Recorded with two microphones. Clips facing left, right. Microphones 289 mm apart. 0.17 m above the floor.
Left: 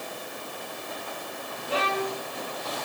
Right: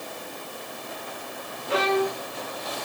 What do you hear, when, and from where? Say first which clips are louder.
1.7 s a violin: right 6 dB; 80° right, 5.5 m